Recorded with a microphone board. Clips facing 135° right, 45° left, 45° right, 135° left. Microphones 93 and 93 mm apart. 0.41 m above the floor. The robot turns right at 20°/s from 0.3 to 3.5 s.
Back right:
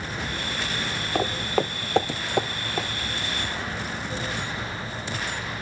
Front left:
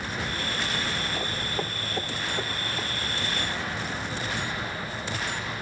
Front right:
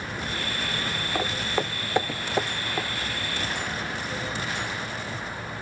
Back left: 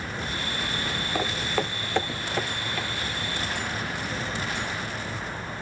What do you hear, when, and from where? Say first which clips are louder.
1.1 s footsteps: back right 6 dB, even; 135° right, 0.8 m; by 2.9 s 110° right, 2.5 m